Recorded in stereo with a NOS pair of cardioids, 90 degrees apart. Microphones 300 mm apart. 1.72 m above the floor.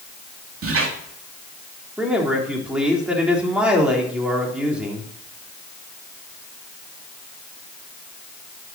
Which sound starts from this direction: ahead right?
A squeak, at 0.6 s.